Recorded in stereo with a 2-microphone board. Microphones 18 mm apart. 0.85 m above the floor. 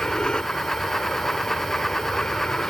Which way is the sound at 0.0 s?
60° left (ahead or behind).